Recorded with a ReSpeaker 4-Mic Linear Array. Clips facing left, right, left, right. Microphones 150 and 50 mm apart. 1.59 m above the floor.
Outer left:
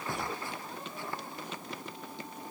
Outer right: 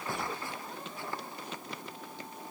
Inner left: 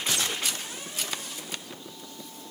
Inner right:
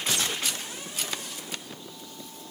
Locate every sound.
Only background noise.